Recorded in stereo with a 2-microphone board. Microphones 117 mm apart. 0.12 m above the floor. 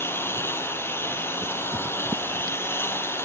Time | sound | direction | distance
0.0 | a lawn mower | 20° left (ahead or behind) | ?